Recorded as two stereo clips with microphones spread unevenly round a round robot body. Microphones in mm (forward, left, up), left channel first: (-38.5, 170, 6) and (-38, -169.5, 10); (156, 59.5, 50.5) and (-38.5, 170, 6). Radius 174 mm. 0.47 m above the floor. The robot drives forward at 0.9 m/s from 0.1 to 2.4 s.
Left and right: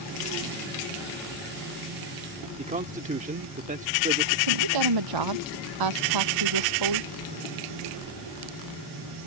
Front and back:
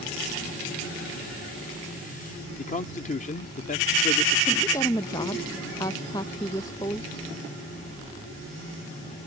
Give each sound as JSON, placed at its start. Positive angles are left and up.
{"t": 2.6, "sound": "a man speaking", "azimuth_deg": -60}
{"t": 4.5, "sound": "a woman speaking", "azimuth_deg": -110}